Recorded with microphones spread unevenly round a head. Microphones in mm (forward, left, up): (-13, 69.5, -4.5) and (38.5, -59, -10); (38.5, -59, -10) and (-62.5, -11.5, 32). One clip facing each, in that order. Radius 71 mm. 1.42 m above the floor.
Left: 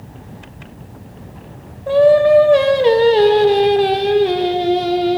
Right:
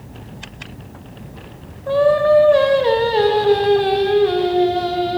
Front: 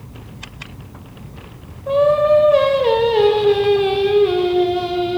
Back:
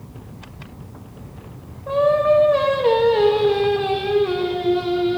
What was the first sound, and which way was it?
Singing, 45° left.